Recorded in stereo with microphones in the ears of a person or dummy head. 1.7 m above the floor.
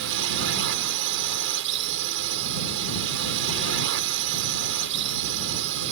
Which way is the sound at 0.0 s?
65° right (ahead or behind).